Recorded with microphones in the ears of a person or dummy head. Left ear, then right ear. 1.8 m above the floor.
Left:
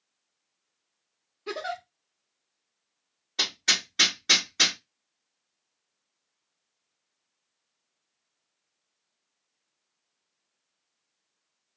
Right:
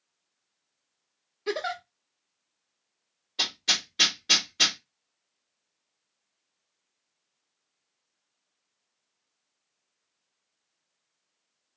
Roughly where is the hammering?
Left.